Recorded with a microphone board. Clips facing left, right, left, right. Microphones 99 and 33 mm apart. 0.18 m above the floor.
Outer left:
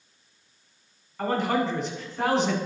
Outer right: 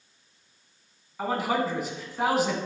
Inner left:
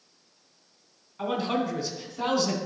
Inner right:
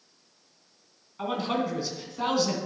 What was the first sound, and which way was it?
A man speaking, 5° right (ahead or behind).